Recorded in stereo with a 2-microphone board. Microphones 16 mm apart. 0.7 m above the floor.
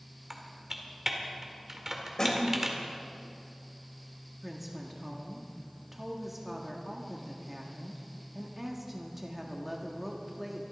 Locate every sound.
0.3 s typing on a keyboard: 25° right (ahead or behind), 2 m
2.2 s a snare drum: 30° left (ahead or behind), 2.5 m
4.4 s a woman speaking: 15° right (ahead or behind), 1.5 m